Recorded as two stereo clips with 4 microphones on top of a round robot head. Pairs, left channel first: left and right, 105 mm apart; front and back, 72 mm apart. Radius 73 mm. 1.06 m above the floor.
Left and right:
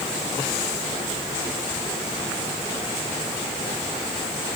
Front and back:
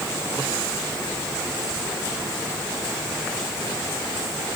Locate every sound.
Only background noise.